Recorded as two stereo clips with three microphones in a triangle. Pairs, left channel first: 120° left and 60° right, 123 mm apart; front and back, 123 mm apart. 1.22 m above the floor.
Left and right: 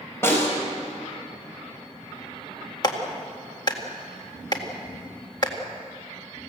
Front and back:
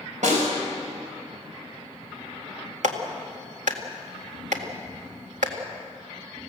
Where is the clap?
175° left, 1.9 m.